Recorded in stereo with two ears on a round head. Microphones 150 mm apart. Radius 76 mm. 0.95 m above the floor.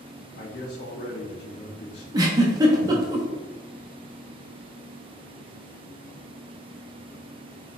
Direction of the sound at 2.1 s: 20° right (ahead or behind).